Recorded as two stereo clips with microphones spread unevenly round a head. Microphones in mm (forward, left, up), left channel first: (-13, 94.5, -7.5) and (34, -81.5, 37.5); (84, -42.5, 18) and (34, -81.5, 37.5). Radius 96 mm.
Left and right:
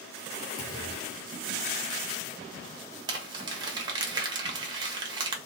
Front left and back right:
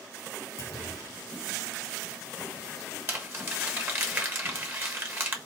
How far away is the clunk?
About 1.5 m.